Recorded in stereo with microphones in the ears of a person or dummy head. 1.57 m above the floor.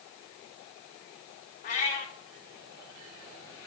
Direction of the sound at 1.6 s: 40° left (ahead or behind).